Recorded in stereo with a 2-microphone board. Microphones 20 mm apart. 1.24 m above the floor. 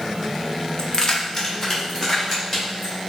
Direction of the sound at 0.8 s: 40° left (ahead or behind).